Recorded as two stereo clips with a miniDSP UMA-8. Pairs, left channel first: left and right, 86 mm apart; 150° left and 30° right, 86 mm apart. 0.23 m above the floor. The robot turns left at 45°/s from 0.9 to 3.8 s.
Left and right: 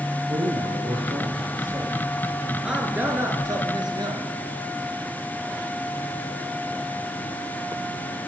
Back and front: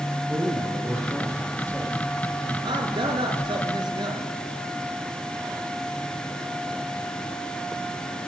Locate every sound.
0.3 s a man speaking: 95° right, 4.5 m; by 1.9 s 140° right, 4.5 m
2.6 s a man speaking: 5° right, 3 m; by 4.3 s 60° right, 3 m